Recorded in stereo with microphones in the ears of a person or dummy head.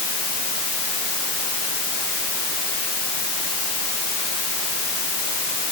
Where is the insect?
No insect in this recording.